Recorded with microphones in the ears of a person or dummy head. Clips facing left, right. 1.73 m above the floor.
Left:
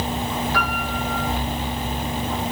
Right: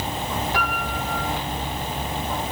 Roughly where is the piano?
Right.